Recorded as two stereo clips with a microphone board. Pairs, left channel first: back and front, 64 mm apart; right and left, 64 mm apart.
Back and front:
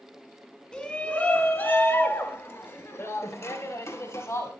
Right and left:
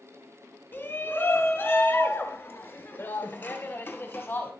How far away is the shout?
About 1.5 m.